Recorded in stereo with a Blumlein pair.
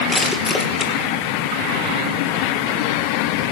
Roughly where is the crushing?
Ahead.